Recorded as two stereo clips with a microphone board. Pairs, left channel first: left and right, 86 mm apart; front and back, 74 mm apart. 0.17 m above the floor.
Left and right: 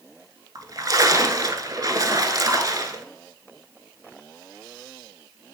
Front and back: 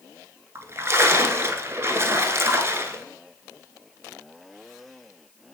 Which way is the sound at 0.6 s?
130° right.